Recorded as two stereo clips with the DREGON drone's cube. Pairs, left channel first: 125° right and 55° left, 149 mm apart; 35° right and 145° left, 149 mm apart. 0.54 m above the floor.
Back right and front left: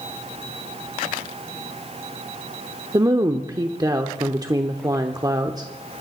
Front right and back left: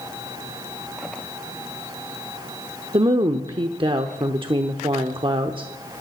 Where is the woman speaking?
110° left, 0.9 m.